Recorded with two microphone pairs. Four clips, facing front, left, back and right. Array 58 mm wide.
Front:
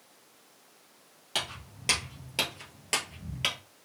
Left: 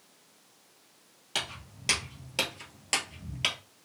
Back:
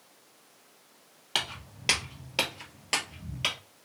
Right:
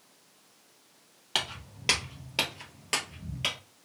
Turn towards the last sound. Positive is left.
turn(degrees=20)